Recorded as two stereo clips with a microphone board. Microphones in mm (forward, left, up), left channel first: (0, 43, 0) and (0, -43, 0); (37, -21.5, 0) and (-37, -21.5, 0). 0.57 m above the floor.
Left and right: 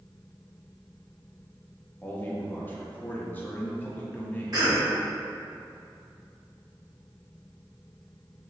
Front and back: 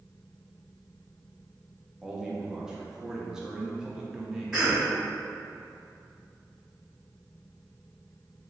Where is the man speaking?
115° left, 0.6 m.